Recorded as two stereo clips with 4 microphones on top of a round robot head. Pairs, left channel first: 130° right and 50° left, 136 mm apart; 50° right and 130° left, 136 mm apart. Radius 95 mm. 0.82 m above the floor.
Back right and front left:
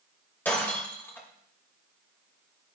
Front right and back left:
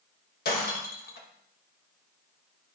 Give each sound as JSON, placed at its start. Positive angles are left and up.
{"t": 0.5, "sound": "breaking glass", "azimuth_deg": -50, "distance_m": 2.5}